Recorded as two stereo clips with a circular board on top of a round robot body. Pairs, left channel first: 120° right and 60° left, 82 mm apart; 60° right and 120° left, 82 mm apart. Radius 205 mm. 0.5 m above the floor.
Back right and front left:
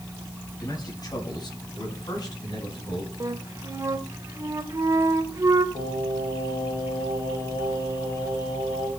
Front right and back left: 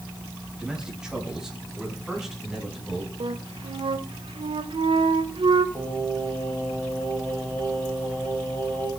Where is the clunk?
No clunk in this recording.